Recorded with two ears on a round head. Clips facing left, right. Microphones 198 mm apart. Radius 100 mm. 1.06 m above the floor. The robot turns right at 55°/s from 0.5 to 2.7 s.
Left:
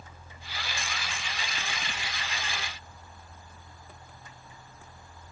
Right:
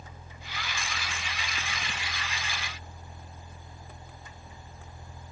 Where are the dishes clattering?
No dishes clattering in this recording.